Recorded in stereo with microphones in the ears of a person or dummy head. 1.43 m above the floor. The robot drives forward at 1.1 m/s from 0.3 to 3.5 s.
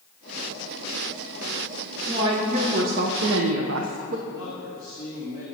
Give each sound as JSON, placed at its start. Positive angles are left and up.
{"t": 2.1, "sound": "a woman speaking", "side_deg": -25, "distance_m": 1.5}
{"t": 4.3, "sound": "a man speaking", "side_deg": -15, "distance_m": 2.0}